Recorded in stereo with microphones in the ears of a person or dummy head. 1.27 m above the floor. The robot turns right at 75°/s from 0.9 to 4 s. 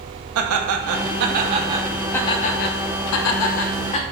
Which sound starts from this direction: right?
Laughter, at 0.3 s.